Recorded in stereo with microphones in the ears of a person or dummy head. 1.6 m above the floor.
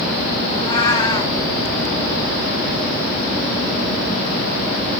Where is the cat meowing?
30° left (ahead or behind), 2.5 m.